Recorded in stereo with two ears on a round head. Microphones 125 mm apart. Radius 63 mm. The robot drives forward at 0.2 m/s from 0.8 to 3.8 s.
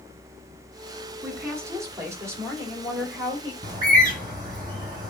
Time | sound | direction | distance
1.2 | a woman speaking | 20° right (ahead or behind) | 3 m
3.6 | a bird | 30° right (ahead or behind) | 3.5 m